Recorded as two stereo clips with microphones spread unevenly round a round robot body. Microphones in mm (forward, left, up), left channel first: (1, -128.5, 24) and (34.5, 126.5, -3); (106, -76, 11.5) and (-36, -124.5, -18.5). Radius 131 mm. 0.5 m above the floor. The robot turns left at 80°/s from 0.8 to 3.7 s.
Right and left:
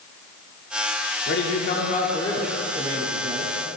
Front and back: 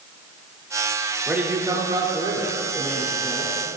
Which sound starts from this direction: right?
A man speaking, at 1.3 s.